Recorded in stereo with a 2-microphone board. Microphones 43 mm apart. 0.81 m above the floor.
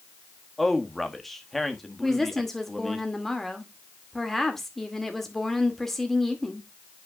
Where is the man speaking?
5° left (ahead or behind), 1.3 m.